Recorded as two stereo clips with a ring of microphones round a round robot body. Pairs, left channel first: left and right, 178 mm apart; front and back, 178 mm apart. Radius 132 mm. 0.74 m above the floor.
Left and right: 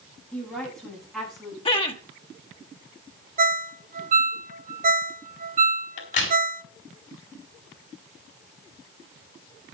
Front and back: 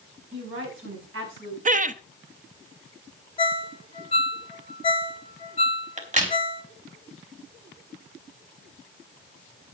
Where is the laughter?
150° left, 1.0 m.